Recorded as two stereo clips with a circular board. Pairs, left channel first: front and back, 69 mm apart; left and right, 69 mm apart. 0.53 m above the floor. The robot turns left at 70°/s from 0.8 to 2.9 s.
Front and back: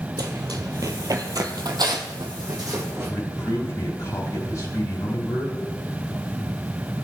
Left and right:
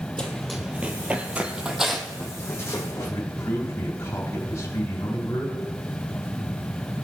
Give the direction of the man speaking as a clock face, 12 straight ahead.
11 o'clock.